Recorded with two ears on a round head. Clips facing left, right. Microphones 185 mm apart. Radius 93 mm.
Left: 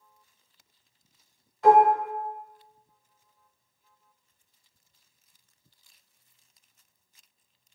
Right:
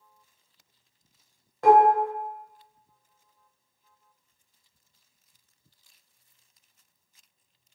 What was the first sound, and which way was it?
Dishes clattering, 40° right (ahead or behind).